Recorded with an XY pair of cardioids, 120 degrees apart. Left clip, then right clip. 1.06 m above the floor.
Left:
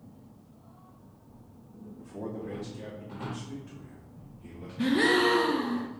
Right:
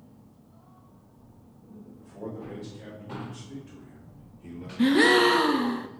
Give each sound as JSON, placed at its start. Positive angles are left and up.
{"t": 2.0, "sound": "a man speaking", "azimuth_deg": 40, "distance_m": 2.5}
{"t": 4.8, "sound": "a gasp", "azimuth_deg": -35, "distance_m": 0.5}